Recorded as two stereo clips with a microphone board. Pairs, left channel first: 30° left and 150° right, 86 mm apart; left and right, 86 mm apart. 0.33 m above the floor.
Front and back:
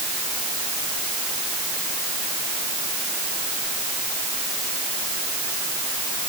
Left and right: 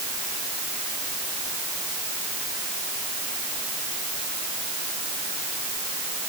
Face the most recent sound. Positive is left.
No sound to turn to.